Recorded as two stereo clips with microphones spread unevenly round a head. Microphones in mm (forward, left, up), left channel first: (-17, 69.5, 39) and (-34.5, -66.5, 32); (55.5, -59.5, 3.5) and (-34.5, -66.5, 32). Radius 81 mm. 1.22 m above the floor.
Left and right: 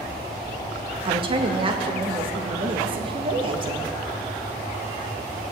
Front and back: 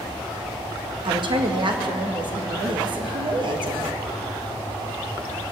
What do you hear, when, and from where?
1.1 s a woman speaking: 145° right, 1.9 m